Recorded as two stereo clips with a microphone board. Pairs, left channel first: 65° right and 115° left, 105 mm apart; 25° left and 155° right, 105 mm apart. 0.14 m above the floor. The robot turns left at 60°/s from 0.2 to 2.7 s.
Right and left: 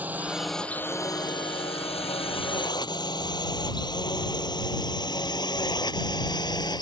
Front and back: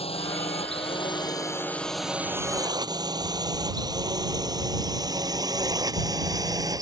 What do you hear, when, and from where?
0.0 s a drone: 40° left; by 6.8 s 110° right